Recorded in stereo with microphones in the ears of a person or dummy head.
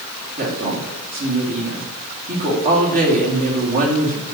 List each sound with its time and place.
0.4 s a woman speaking: 45° right (ahead or behind), 2.5 m